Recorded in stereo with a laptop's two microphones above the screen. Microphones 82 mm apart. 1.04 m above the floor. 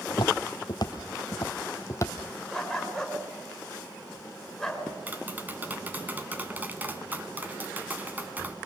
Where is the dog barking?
5° left (ahead or behind), 5 m.